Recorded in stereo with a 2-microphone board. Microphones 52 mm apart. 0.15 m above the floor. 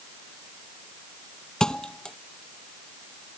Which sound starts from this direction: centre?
A thud, at 1.6 s.